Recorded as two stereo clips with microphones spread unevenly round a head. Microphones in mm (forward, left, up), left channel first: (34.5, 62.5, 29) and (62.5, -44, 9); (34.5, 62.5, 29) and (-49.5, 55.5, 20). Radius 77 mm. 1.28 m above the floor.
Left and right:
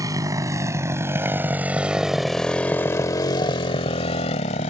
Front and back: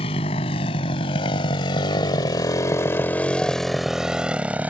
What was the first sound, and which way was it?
A motorcycle, 15° right.